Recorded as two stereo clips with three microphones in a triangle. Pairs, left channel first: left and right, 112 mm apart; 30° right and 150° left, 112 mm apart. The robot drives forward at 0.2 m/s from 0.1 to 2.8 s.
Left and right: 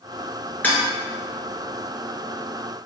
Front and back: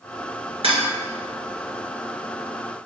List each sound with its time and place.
0.6 s dishes clattering: 160° left, 1.9 m; by 0.8 s 165° left, 1.9 m